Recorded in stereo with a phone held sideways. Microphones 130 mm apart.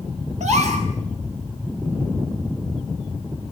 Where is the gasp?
75° right (ahead or behind), 4 m.